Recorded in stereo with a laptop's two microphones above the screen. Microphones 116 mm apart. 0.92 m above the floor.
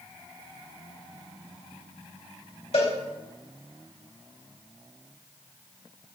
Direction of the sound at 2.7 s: 70° left (ahead or behind).